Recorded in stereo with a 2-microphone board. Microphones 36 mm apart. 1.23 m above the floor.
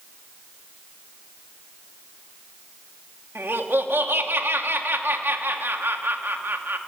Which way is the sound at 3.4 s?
75° right (ahead or behind).